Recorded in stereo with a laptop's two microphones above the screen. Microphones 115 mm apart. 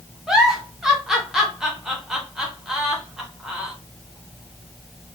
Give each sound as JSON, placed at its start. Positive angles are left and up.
{"t": 0.3, "sound": "a giggle", "side_deg": -5, "distance_m": 0.6}